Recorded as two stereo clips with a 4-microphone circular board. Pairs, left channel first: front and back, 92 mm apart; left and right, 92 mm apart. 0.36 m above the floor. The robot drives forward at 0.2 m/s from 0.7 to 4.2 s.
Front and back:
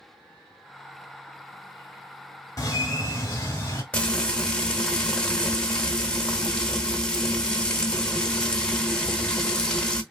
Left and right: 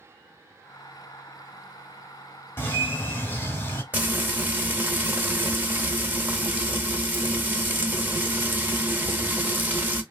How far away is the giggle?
I don't hear a giggle.